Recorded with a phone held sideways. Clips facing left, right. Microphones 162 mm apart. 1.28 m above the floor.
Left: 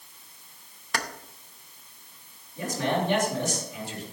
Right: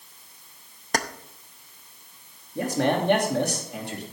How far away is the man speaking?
About 2.5 m.